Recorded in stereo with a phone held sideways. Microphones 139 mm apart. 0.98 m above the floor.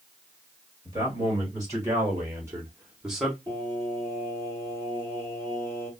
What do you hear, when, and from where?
0.8 s a man speaking: 25° right (ahead or behind), 1.9 m; by 3.4 s centre (ahead or behind), 0.9 m
3.5 s singing: 20° left (ahead or behind), 2.5 m